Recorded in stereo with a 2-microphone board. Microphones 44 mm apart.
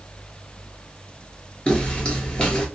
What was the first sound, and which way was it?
Footsteps, 25° left (ahead or behind).